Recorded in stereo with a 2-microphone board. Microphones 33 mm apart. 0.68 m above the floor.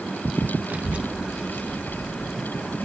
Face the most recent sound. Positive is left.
turn(degrees=0)  # may be behind; listen again after turning